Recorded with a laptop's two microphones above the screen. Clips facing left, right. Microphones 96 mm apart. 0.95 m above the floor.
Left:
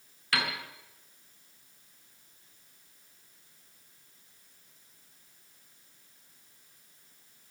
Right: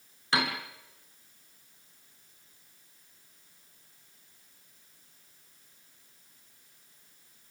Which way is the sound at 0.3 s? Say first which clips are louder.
Right 3 dB; 25° right (ahead or behind).